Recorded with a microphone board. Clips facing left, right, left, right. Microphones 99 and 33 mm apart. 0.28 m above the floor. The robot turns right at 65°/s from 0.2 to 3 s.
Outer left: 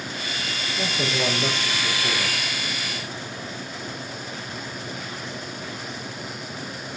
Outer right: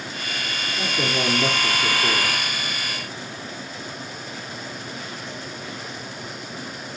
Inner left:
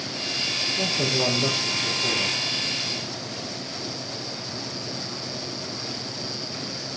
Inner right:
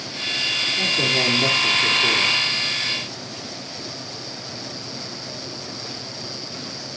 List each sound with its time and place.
0.8 s a man speaking: 155° right, 6 m; by 2.4 s 45° right, 6 m